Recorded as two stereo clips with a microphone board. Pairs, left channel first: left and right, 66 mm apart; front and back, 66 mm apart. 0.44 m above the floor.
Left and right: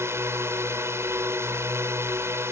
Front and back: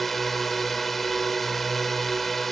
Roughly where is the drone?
Right.